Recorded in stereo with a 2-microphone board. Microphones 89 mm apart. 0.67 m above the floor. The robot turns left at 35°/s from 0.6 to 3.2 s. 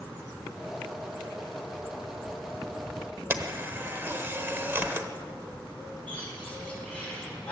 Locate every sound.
3.3 s a camera shutter: 25° right (ahead or behind), 1.0 m
6.1 s a bird: 15° left (ahead or behind), 6 m